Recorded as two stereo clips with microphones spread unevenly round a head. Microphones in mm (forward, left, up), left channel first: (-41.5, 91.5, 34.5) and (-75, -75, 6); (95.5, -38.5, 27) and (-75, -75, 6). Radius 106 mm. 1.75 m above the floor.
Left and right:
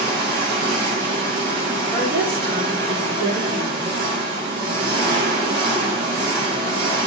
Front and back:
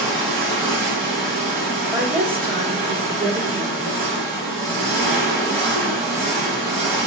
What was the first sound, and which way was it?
An engine running, 170° right.